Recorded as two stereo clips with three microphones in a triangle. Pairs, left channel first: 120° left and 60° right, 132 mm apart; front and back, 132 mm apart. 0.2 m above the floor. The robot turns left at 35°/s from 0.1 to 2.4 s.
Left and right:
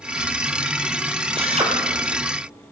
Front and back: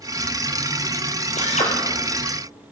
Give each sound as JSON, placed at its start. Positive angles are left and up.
{"t": 1.4, "sound": "a drill", "azimuth_deg": -20, "distance_m": 4.0}